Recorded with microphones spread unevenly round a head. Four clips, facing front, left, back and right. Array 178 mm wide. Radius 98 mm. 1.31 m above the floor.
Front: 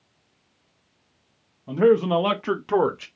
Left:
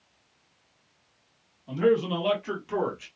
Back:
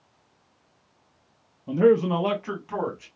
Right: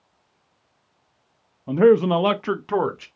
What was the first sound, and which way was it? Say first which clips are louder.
A man speaking: right 8 dB, front 1 dB; 105° right.